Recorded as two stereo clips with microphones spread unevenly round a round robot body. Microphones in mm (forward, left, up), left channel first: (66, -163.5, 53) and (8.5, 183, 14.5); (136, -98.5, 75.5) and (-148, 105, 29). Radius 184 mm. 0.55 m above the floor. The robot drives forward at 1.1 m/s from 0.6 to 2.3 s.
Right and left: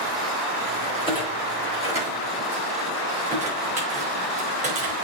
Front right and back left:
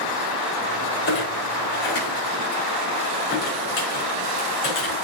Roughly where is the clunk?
Ahead left.